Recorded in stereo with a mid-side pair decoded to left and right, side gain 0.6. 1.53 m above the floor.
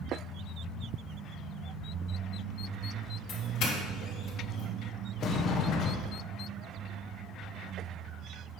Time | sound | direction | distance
3.3 | a doorbell | 65° left | 3 m
5.2 | a sliding door | 55° left | 1.1 m